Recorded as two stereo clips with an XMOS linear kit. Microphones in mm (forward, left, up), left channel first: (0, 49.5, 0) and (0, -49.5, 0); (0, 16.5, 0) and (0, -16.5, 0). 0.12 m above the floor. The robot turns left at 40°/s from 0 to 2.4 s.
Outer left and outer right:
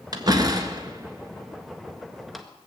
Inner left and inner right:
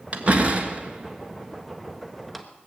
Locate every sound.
0.1 s a door slam: 40° right (ahead or behind), 1.3 m; by 2.5 s centre (ahead or behind), 1.3 m